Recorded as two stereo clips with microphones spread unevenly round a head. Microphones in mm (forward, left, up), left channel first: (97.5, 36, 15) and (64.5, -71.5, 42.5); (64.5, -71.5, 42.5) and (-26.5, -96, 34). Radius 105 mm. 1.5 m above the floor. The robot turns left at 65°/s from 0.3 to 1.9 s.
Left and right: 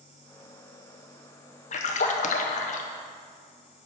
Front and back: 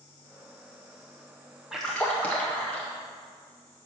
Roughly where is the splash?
Left.